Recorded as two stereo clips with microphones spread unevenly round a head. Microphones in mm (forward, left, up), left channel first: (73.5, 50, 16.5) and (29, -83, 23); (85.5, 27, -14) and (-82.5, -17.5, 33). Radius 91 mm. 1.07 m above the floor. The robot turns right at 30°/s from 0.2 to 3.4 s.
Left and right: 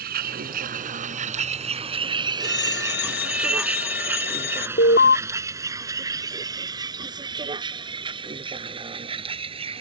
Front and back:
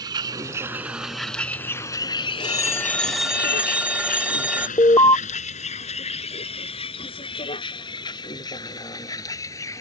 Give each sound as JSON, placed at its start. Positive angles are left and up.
{"t": 0.0, "sound": "a vehicle", "azimuth_deg": -100}
{"t": 2.4, "sound": "a phone ringing", "azimuth_deg": 80}
{"t": 4.8, "sound": "an alarm", "azimuth_deg": 85}